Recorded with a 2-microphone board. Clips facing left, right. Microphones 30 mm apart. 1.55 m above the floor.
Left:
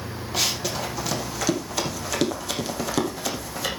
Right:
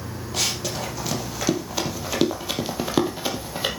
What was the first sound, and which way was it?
Running footsteps, 5° left (ahead or behind).